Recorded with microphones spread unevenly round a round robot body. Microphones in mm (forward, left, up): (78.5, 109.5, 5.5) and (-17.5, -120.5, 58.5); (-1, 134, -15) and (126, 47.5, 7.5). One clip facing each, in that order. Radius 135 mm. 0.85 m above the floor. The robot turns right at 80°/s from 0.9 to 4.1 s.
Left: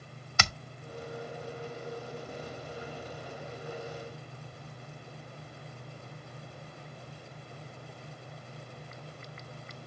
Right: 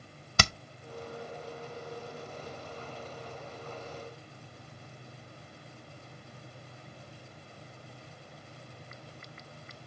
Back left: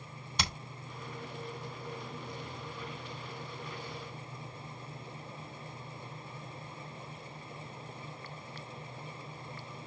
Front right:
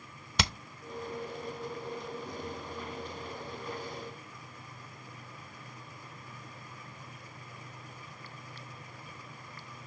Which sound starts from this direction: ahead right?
Hammering, at 0.4 s.